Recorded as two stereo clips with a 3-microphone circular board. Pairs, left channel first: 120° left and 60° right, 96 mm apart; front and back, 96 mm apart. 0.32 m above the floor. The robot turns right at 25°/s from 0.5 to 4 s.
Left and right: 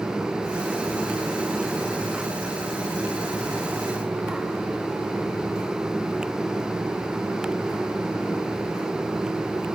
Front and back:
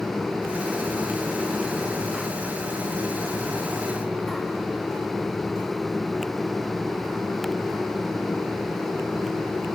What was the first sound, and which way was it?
Only background noise.